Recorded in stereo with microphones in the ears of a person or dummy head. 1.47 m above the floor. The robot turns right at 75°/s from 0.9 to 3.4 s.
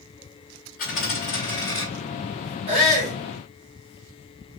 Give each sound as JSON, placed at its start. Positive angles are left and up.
{"t": 0.8, "sound": "a dropped coin", "azimuth_deg": 85, "distance_m": 1.8}
{"t": 2.7, "sound": "a shout", "azimuth_deg": -150, "distance_m": 1.6}